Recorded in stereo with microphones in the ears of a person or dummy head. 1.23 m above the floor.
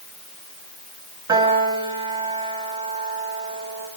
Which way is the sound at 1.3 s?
25° right (ahead or behind).